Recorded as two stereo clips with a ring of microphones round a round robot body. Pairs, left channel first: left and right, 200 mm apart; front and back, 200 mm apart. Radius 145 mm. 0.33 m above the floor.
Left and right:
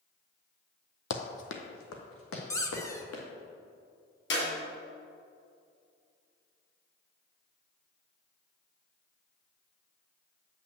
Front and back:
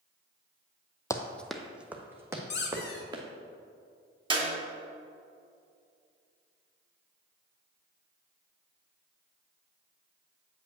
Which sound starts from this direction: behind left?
A clap, at 4.3 s.